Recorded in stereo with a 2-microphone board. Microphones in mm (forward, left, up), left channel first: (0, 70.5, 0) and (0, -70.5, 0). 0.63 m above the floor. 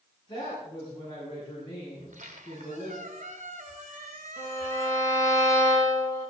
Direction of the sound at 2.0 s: 85° right.